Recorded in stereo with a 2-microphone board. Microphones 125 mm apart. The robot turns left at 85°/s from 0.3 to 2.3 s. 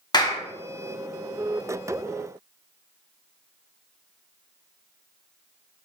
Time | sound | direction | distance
0.1 | a clap | 35° left (ahead or behind) | 0.6 m